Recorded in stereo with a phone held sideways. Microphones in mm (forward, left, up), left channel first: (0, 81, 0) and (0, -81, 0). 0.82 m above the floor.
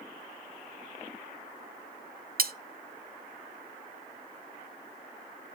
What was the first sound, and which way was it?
Cutlery clinking, 65° right (ahead or behind).